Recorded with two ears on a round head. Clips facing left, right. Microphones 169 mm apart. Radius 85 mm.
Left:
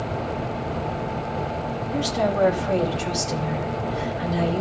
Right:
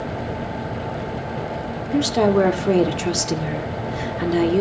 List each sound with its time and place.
1.9 s a woman speaking: 65° right (ahead or behind), 2 m